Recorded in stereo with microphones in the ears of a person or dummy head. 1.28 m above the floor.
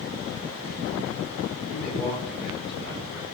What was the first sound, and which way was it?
A man speaking, centre (ahead or behind).